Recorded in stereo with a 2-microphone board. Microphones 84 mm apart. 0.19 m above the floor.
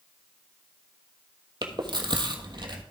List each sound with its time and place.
1.6 s chewing: 65° right (ahead or behind), 1.2 m